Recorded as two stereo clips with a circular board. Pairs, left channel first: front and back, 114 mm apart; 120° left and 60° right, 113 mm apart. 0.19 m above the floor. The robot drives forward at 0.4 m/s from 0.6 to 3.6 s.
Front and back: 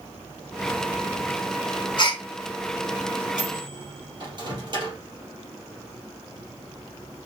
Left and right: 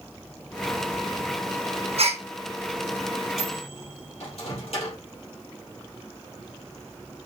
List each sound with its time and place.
2.0 s a gasp: 45° right, 1.8 m
3.4 s a microwave: 135° left, 3.5 m